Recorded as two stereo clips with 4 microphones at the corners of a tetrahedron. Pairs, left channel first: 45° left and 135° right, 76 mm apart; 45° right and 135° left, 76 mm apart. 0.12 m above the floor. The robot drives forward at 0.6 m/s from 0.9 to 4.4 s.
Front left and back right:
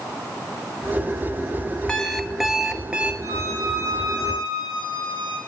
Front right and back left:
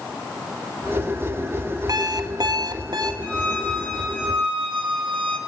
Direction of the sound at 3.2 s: 105° right.